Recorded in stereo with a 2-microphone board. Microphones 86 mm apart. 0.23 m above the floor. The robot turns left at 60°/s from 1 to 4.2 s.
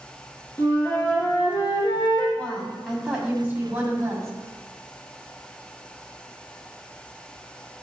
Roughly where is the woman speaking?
Ahead left.